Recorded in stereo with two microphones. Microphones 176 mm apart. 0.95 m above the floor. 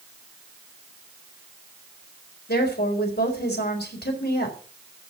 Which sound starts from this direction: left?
A woman speaking, at 2.5 s.